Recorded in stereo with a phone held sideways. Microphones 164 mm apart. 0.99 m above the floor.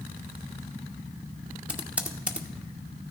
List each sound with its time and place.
1.7 s typing on a keyboard: 5° right (ahead or behind), 1.1 m